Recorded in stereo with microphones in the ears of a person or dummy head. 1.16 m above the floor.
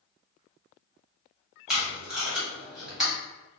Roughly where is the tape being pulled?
Centre.